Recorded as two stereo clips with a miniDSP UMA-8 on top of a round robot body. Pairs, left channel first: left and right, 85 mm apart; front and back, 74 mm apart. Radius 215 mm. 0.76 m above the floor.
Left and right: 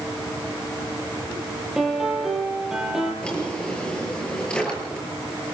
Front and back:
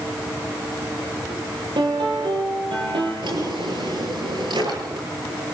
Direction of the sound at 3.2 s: 170° left.